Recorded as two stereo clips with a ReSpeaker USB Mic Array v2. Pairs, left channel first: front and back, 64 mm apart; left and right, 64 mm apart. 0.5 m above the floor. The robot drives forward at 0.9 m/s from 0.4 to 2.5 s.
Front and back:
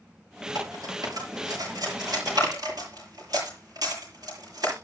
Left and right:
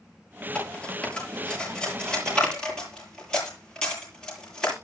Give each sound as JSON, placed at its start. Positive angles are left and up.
{"t": 0.6, "sound": "cutlery clinking", "azimuth_deg": 165, "distance_m": 6.0}